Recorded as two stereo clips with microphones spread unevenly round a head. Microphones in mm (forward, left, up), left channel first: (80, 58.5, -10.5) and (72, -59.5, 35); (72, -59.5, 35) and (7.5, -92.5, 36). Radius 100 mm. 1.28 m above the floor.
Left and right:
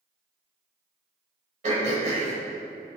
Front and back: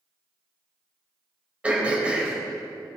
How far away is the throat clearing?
About 3.5 m.